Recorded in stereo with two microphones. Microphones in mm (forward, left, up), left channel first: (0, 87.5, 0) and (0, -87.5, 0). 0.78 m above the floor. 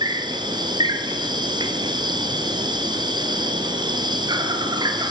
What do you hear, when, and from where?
0.0 s an insect: 25° right (ahead or behind), 2.0 m